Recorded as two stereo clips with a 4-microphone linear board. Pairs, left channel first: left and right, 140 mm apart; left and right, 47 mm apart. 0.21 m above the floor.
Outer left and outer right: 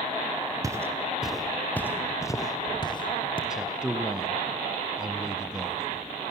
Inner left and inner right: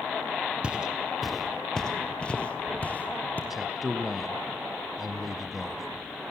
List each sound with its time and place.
0.6 s footsteps: 25° right (ahead or behind), 1.5 m; by 3.4 s 40° left (ahead or behind), 3 m
3.5 s a man speaking: 5° right (ahead or behind), 1.2 m